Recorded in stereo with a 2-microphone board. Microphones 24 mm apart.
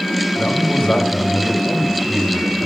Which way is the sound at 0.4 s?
65° left (ahead or behind).